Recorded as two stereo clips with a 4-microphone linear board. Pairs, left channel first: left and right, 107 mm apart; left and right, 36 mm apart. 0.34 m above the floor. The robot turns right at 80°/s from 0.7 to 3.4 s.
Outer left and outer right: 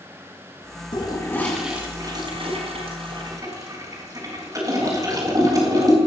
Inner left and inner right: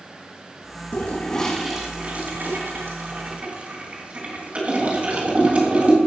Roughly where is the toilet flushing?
Left.